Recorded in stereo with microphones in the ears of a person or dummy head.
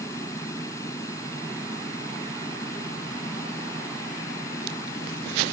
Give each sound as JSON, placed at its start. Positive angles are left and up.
{"t": 0.0, "sound": "a fan", "side_deg": 15}